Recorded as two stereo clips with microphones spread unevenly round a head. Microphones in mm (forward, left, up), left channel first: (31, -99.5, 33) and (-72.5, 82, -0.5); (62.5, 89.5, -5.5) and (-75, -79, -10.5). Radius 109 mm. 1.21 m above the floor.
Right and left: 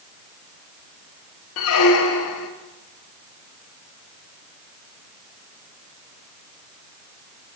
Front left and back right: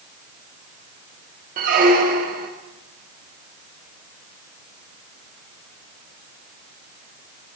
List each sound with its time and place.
1.6 s a squeak: 75° right, 0.5 m